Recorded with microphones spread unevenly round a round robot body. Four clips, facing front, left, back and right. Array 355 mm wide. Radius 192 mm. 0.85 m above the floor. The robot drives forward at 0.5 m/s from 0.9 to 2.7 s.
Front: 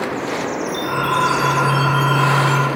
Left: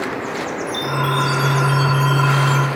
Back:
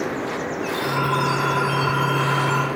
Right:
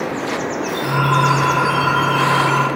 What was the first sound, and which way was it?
A chime, 100° left.